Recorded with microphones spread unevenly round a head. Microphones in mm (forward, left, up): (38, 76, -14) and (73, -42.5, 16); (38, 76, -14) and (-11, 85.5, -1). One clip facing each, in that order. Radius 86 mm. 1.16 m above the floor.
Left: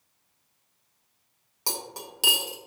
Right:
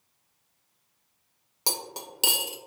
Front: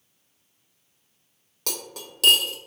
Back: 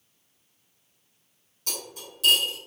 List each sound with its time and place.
1.7 s cutlery clinking: 25° right, 0.6 m